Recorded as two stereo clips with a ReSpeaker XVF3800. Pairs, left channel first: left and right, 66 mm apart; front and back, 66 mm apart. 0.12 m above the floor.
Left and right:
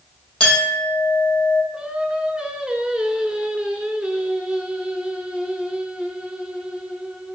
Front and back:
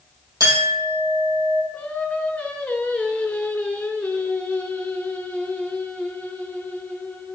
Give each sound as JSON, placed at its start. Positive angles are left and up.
{"t": 0.4, "sound": "a clink", "azimuth_deg": 165, "distance_m": 2.5}
{"t": 1.7, "sound": "singing", "azimuth_deg": -35, "distance_m": 0.7}